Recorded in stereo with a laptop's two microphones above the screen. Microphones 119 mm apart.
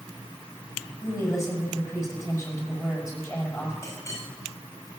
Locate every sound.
1.0 s a woman speaking: 25° left (ahead or behind), 6.5 m
3.8 s a clink: 25° left (ahead or behind), 4 m